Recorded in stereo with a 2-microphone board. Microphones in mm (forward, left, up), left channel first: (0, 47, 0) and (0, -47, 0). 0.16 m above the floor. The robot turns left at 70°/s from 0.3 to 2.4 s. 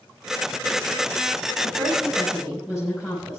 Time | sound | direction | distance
1.6 | a woman speaking | 120° right | 6 m